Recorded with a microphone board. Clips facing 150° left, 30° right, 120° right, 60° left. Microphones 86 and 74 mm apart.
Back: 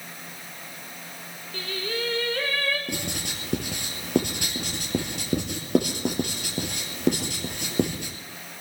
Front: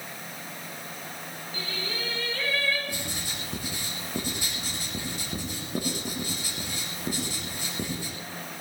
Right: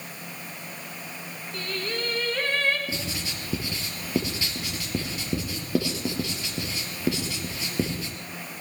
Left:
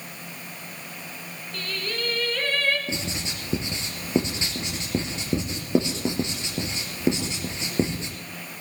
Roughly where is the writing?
Behind left.